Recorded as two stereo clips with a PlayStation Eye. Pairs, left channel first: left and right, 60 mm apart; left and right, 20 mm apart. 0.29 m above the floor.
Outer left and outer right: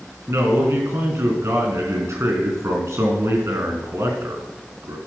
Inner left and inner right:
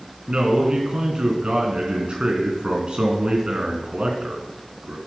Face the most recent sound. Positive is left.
turn(degrees=-55)  # may be behind; listen again after turning